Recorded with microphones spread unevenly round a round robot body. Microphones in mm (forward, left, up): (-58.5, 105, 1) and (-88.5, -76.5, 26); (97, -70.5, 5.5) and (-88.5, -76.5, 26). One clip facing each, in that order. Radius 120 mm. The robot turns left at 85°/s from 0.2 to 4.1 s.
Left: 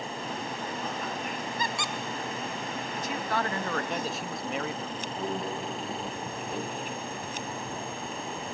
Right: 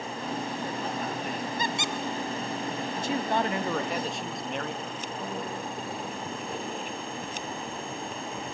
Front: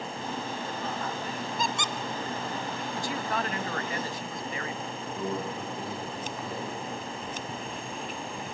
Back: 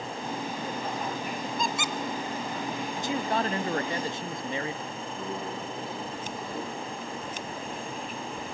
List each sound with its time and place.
1.6 s a squeak: 95° right, 0.5 m; by 1.9 s 125° right, 0.5 m
3.0 s a man speaking: 120° right, 0.6 m; by 5.1 s 145° left, 0.6 m
5.2 s a microwave: 10° left, 5 m